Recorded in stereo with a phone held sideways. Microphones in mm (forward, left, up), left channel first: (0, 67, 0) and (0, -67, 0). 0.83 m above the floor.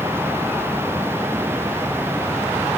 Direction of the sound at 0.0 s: 20° right (ahead or behind).